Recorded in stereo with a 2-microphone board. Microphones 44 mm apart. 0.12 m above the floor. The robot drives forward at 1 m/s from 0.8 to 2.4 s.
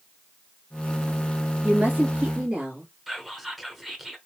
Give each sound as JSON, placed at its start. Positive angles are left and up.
{"t": 1.6, "sound": "a woman speaking", "side_deg": -45, "distance_m": 2.5}
{"t": 3.1, "sound": "whispering", "side_deg": -5, "distance_m": 1.2}